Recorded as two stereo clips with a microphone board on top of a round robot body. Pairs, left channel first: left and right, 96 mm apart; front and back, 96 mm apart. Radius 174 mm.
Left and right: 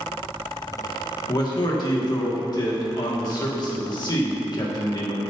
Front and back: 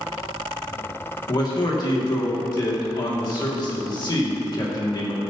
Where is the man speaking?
45° left, 2 m.